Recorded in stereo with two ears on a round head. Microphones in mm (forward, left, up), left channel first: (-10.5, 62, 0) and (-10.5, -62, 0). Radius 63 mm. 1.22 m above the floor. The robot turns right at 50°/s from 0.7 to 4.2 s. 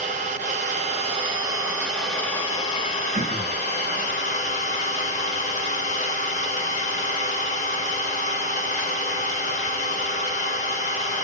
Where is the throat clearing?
40° right (ahead or behind), 1.4 m; by 3.6 s 20° right (ahead or behind), 1.4 m.